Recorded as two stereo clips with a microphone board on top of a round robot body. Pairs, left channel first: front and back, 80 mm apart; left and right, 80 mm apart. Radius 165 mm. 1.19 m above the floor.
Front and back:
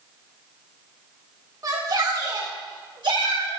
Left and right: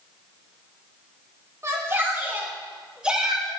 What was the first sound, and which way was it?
A shout, 140° right.